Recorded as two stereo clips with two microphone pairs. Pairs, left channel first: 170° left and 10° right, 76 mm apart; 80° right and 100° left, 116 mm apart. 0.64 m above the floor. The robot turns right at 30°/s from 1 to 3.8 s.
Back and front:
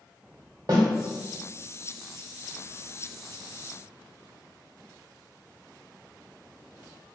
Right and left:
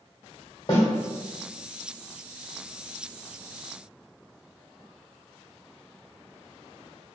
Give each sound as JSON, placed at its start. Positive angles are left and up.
{"t": 0.7, "sound": "a snare drum", "azimuth_deg": -35, "distance_m": 1.2}